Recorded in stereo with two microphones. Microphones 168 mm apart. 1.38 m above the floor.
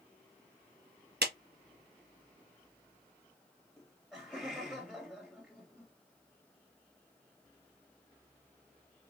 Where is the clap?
80° right, 1.0 m.